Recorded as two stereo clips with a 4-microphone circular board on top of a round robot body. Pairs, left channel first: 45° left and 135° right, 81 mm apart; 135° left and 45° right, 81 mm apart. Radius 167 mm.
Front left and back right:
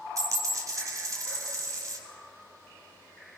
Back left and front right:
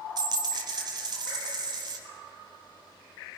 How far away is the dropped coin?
About 0.9 m.